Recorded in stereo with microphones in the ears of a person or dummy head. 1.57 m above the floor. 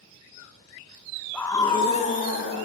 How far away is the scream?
About 1.7 m.